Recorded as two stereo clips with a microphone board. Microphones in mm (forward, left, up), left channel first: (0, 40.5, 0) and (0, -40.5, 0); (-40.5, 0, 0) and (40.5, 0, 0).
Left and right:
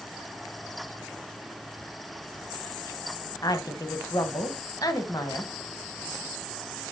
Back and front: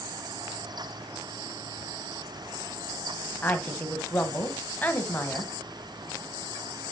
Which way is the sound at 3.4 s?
115° left.